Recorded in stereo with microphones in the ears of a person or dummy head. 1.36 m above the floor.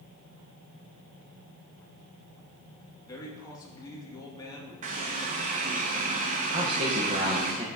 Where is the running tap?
40° right (ahead or behind), 1.0 m.